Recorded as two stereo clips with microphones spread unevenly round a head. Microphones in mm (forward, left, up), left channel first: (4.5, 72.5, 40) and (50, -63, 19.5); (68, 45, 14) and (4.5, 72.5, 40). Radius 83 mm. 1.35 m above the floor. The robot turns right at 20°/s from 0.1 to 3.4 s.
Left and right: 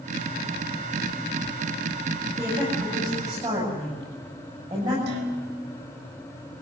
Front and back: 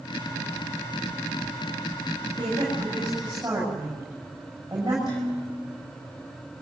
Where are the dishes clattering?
90° right, 4 m.